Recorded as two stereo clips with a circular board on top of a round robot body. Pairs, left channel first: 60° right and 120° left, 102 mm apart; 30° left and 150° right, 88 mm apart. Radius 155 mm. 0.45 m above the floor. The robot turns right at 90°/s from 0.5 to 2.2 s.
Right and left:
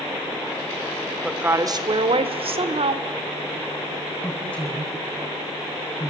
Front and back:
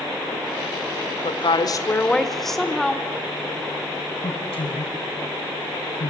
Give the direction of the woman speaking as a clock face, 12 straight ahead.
11 o'clock.